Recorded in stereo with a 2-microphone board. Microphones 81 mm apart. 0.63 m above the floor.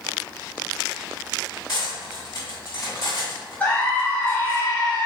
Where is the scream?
20° left (ahead or behind), 0.7 m.